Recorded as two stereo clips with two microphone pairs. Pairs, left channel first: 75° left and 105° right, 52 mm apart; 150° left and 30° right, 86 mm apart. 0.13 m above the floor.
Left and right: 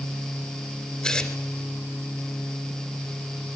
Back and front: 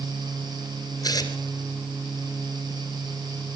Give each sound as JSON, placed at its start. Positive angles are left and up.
{"t": 1.0, "sound": "tearing paper", "azimuth_deg": 140, "distance_m": 2.5}